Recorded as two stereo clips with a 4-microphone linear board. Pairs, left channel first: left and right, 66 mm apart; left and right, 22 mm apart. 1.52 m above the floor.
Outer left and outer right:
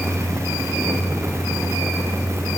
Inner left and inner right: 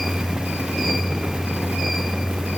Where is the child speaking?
I don't hear a child speaking.